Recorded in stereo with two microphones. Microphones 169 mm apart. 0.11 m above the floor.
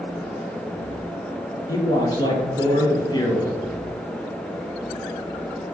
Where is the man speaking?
25° left (ahead or behind), 1.9 m.